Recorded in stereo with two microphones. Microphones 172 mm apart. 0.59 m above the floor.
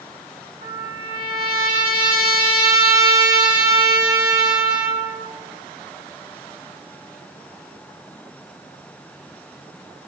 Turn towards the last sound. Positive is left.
turn(degrees=-80)